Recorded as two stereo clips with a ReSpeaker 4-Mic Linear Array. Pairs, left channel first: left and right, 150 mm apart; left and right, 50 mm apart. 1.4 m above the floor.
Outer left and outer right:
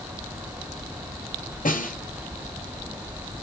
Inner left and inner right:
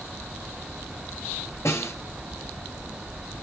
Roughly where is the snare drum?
Left.